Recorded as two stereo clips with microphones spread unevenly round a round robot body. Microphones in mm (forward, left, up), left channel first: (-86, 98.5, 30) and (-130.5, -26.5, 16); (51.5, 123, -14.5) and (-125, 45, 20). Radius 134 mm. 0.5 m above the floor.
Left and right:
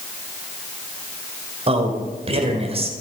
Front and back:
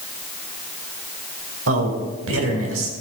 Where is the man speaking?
140° right, 2 m.